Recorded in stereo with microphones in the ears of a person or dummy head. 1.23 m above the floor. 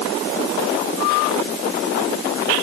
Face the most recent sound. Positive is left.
No sound to turn to.